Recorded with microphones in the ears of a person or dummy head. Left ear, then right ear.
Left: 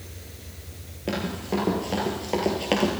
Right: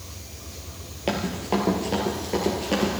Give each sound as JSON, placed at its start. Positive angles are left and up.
{"t": 1.1, "sound": "running footsteps", "side_deg": -15, "distance_m": 1.6}